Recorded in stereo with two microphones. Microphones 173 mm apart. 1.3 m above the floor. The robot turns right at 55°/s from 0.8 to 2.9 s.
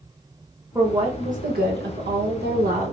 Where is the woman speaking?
160° right, 1.2 m; by 2.9 s 45° right, 1.2 m.